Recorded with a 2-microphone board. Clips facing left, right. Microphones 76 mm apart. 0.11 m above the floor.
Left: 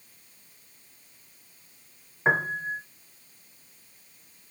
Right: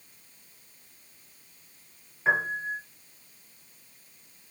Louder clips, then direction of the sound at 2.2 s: Left 1 dB; 35° left (ahead or behind).